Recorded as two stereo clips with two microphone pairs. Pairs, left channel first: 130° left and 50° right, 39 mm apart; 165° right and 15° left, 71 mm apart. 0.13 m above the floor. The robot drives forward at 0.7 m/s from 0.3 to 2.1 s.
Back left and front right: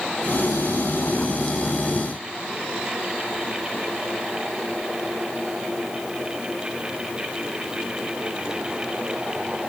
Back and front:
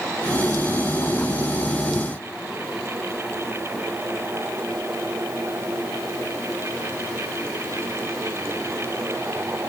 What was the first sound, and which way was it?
Only background noise.